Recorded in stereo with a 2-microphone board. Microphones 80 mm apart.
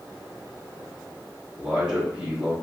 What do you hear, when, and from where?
1.6 s a man speaking: 10° right (ahead or behind), 1.7 m